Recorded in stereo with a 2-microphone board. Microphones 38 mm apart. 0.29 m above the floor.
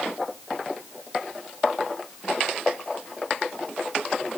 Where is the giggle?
I don't hear a giggle.